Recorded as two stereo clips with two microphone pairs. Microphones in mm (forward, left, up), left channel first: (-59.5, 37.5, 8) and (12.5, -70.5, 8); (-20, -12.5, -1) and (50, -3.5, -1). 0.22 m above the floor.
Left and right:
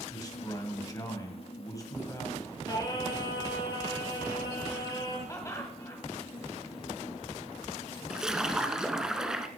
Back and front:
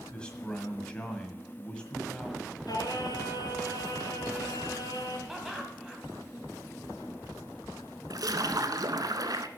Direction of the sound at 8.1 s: 30° left.